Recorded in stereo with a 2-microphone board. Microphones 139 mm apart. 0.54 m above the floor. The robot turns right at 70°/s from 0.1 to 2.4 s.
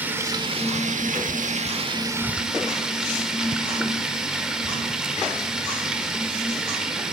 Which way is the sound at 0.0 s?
165° right.